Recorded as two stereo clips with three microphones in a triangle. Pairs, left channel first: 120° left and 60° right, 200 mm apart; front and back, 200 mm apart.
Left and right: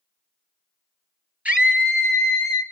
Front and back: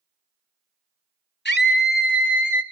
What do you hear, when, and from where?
1.4 s a scream: 25° left, 3 m; by 2.6 s 40° left, 4 m